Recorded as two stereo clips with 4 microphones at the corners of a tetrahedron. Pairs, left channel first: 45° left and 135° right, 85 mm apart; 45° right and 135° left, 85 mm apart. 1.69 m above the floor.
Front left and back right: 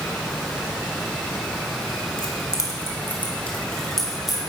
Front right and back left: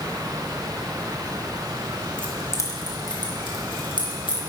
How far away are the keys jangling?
About 1.2 m.